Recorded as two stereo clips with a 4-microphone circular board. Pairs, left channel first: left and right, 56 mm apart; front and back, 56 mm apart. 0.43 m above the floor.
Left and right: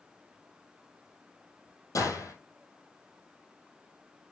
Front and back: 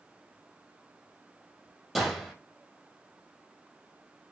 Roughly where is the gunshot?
Left.